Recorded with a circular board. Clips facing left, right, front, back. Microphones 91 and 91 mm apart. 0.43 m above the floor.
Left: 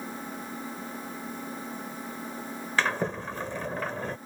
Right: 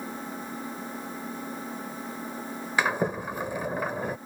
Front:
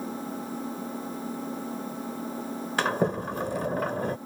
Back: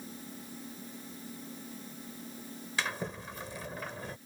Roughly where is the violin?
No violin in this recording.